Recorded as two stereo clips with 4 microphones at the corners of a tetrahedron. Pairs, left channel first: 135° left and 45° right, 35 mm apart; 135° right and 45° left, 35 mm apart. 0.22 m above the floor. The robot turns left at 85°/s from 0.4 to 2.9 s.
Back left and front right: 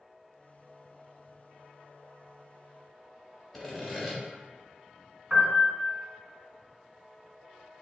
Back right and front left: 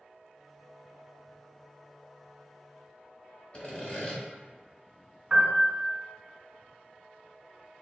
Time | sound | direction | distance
3.5 | sawing | 130° right | 1.0 m
5.3 | a piano | 15° right | 1.4 m